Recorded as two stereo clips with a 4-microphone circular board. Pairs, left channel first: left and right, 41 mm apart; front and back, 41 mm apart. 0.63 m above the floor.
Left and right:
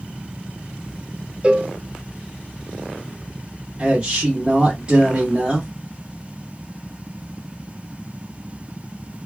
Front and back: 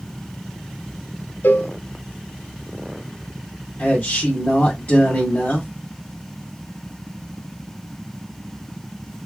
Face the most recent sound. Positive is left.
turn(degrees=-30)